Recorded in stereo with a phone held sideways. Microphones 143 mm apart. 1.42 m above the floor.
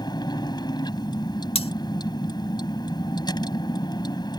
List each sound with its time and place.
0.0 s a vehicle: 30° left (ahead or behind)
1.6 s cutlery clinking: 40° left (ahead or behind)